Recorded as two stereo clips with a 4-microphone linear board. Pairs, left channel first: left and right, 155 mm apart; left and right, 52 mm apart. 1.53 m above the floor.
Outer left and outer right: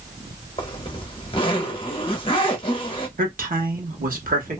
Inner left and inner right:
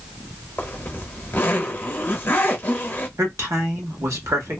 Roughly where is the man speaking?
Right.